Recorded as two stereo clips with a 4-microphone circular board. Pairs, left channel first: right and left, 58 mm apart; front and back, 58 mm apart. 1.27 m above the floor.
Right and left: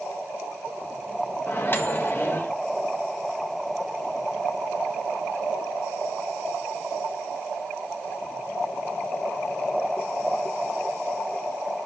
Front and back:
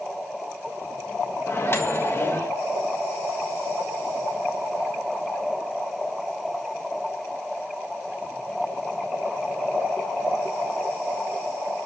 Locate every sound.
1.5 s a microwave: 45° right, 1.4 m